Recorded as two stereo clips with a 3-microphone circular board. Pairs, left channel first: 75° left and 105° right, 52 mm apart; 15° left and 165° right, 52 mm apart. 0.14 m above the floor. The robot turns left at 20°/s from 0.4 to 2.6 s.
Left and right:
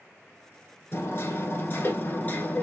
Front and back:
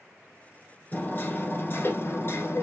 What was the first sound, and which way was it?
Hammering, 55° left.